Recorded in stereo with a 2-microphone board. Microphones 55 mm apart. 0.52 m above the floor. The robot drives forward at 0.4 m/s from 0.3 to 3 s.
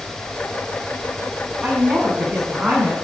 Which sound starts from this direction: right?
A woman speaking, at 1.6 s.